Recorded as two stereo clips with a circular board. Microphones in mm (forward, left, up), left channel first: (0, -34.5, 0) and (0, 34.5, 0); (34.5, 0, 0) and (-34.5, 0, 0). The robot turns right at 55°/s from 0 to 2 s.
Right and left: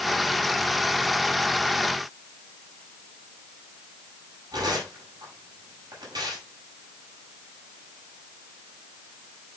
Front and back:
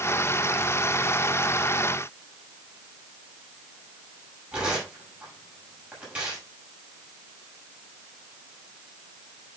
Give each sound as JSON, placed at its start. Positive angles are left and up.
{"t": 4.5, "sound": "tearing paper", "azimuth_deg": 110, "distance_m": 6.0}